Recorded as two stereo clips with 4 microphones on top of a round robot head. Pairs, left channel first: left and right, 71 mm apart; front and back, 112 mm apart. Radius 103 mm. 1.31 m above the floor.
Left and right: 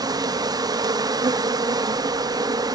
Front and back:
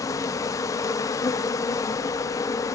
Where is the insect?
60° right, 0.8 m.